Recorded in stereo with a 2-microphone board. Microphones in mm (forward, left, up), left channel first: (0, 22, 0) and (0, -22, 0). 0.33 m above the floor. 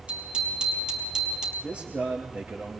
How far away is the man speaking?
About 5.5 m.